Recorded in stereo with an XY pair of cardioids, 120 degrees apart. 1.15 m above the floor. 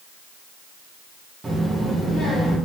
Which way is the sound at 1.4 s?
15° right.